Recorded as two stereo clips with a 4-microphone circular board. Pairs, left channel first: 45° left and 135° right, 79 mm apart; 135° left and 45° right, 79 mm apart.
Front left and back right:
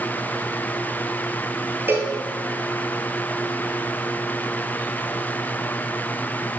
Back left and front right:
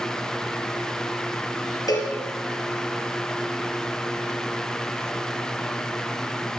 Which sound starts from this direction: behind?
A cowbell, at 1.9 s.